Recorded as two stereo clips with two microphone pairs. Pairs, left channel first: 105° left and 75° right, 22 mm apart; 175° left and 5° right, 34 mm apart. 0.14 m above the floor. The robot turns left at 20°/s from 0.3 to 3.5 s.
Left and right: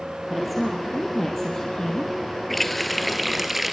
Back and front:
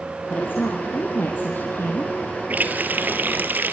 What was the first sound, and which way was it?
A woman speaking, 165° right.